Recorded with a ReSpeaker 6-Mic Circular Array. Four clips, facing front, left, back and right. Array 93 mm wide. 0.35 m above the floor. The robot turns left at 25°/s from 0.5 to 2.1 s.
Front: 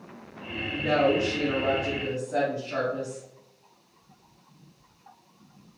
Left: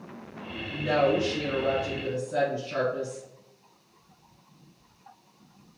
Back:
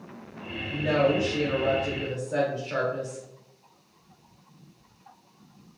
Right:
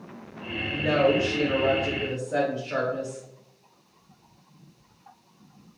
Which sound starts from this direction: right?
A woman speaking, at 0.7 s.